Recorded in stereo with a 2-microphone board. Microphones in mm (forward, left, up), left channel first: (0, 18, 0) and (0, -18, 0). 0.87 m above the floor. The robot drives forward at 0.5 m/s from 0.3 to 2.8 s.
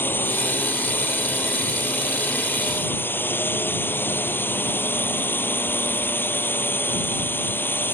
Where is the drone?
80° left.